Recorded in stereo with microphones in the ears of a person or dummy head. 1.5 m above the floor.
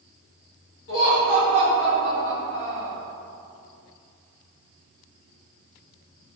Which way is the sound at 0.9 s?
75° left (ahead or behind).